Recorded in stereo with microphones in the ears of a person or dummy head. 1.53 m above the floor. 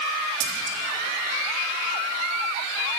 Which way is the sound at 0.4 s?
85° right.